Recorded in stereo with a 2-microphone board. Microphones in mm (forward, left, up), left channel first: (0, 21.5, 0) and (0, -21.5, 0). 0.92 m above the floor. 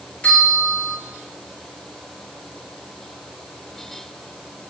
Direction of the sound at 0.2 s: 30° left (ahead or behind).